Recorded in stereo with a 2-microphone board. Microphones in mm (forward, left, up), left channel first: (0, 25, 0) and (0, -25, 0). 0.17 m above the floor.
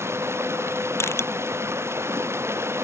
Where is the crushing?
65° left (ahead or behind).